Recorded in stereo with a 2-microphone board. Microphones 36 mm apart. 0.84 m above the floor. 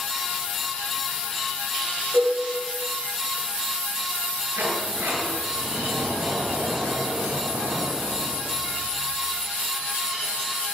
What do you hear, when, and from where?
2.1 s a cowbell: 50° right (ahead or behind), 9 m
4.6 s a sliding door: 85° right, 8.5 m